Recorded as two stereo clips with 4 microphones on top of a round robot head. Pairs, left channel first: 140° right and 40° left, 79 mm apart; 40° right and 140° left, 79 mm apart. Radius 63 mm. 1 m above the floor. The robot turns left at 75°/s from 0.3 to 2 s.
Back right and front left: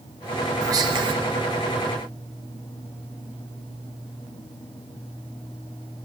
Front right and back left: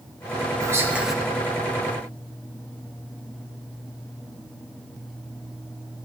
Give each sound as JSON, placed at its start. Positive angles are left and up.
{"t": 0.6, "sound": "whispering", "azimuth_deg": 90, "distance_m": 1.0}